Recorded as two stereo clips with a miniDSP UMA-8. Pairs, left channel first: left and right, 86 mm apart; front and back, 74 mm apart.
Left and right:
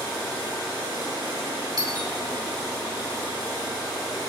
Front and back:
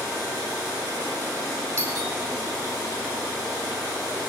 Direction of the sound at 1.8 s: 125° right.